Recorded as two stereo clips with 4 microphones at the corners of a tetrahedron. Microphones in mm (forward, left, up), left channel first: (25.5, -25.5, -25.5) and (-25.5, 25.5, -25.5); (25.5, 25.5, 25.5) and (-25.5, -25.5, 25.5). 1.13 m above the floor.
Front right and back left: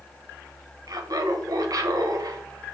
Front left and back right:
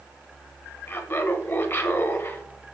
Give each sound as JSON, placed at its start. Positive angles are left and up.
{"t": 0.9, "sound": "laughter", "azimuth_deg": 100, "distance_m": 0.5}